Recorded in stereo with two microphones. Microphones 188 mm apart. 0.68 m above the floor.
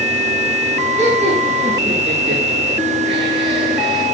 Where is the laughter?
35° right (ahead or behind), 8.5 m; by 4.0 s 25° right (ahead or behind), 8.5 m.